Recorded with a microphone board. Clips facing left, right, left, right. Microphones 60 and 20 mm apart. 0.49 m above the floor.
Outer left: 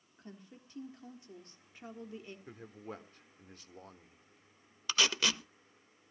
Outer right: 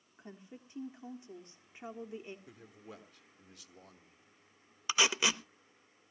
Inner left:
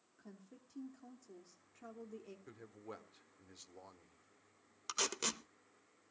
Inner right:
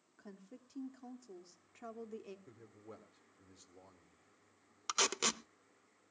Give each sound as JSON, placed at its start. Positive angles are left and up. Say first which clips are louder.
{"t": 0.2, "sound": "a woman speaking", "louder": "outer right 2 dB, inner right 3 dB", "side_deg": -20, "distance_m": 1.0}
{"t": 2.5, "sound": "a man speaking", "louder": "outer left 5 dB, inner left 3 dB", "side_deg": 40, "distance_m": 1.1}
{"t": 4.9, "sound": "tape being pulled", "louder": "outer right 1 dB, inner right 4 dB", "side_deg": -15, "distance_m": 0.7}